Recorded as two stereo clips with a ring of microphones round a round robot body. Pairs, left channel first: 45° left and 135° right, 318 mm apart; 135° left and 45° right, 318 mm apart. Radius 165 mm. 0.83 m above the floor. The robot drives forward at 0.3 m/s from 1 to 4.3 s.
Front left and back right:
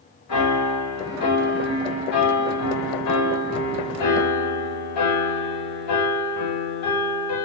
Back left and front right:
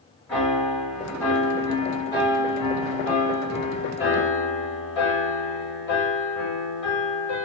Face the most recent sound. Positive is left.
turn(degrees=80)